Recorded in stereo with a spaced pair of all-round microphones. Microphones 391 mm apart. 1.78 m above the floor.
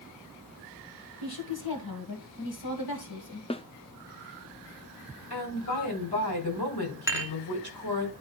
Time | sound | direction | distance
1.2 | a woman speaking | 65° left (ahead or behind) | 2 m
3.5 | a snare drum | 15° left (ahead or behind) | 0.5 m
5.3 | a woman speaking | 80° left | 4.5 m
7.1 | dishes clattering | 5° right (ahead or behind) | 0.9 m